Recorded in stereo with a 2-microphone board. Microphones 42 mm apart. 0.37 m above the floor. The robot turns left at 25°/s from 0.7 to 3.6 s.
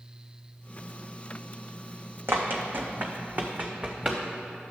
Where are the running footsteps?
60° right (ahead or behind), 1.1 m; by 4.2 s 20° right (ahead or behind), 1.5 m.